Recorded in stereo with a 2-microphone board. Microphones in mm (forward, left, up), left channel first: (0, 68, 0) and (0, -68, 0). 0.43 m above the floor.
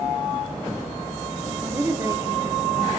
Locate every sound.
1.6 s a woman speaking: 15° right (ahead or behind), 1.1 m; by 3.0 s 35° right (ahead or behind), 1.9 m